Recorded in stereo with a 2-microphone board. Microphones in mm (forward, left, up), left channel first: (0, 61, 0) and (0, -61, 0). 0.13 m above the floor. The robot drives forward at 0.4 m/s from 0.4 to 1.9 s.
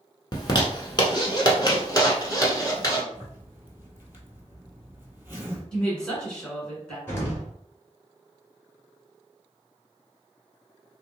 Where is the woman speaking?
10° left (ahead or behind), 1.5 m.